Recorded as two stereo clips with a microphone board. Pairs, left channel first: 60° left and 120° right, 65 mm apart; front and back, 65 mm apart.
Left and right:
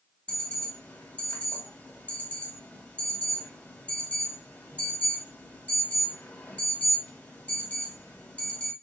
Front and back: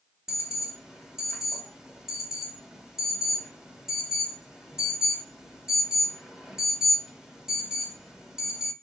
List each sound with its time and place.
0.3 s an alarm: 105° left, 0.7 m